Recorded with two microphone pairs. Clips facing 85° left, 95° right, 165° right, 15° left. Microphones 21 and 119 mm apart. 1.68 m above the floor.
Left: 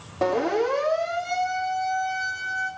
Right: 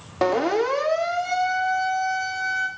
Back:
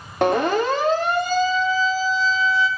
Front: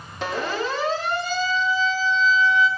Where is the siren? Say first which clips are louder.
Right 2 dB, back 8 dB; 135° right, 4 m; by 2.7 s 110° right, 4.5 m.